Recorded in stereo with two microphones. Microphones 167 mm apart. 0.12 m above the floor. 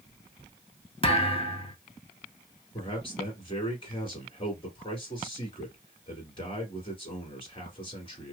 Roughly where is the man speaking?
Left.